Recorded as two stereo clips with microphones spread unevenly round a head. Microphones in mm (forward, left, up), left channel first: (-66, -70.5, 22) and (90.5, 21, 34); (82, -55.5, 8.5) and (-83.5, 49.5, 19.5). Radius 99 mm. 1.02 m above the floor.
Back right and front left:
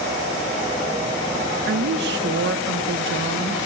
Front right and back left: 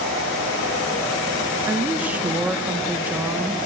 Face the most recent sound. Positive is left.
turn(degrees=65)